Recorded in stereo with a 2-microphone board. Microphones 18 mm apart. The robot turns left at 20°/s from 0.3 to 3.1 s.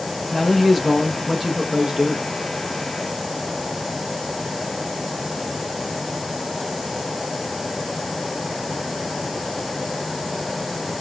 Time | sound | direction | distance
0.3 | a man speaking | 15° left | 0.7 m